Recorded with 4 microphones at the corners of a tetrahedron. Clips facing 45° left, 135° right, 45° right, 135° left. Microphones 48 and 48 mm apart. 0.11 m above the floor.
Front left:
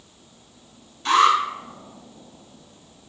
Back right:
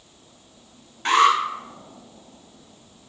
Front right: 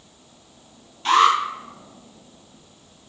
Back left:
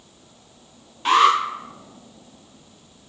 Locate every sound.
1.1 s an alarm: 155° right, 1.2 m